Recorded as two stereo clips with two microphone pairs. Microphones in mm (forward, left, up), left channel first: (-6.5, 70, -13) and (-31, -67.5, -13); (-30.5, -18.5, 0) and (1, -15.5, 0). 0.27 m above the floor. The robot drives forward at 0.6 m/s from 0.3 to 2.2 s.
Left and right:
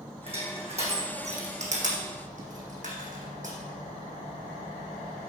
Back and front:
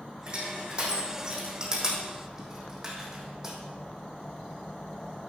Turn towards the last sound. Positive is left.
turn(degrees=-70)